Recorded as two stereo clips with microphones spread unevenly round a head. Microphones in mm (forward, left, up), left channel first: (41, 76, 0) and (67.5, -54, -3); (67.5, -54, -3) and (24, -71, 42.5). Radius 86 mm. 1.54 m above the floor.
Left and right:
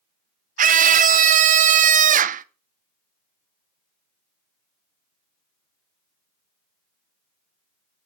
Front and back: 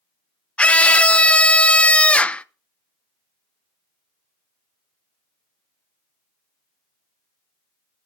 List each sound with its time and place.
0.6 s a scream: 60° right, 0.9 m